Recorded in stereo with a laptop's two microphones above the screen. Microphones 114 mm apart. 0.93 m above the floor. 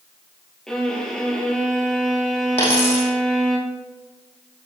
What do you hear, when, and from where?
0.7 s a violin: 5° left (ahead or behind), 3 m
2.6 s a dropped coin: 65° left (ahead or behind), 3.5 m